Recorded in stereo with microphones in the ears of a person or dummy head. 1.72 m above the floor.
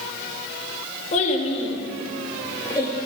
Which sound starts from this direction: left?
A child speaking, at 1.1 s.